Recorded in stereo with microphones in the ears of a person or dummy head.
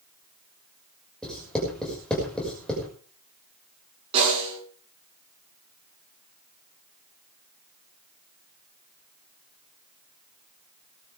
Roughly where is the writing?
Centre.